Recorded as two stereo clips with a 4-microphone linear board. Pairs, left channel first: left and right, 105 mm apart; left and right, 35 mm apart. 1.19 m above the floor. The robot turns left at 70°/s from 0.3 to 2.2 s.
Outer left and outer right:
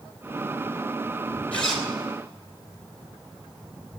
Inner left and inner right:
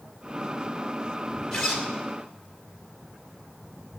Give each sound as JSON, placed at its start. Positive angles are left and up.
{"t": 1.5, "sound": "a zipper", "side_deg": 15, "distance_m": 2.5}